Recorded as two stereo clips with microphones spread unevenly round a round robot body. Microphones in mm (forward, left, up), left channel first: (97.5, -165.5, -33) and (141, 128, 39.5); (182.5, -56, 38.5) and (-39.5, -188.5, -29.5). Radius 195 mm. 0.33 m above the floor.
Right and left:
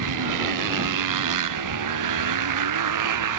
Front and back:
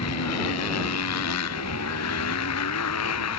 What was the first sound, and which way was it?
A motorcycle, 80° left.